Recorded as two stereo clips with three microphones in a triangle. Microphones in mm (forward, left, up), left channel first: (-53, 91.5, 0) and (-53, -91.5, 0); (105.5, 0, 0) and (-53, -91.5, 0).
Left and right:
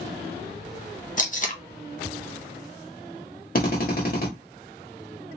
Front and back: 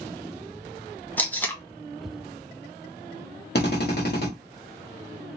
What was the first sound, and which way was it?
Tape being pulled, 105° left.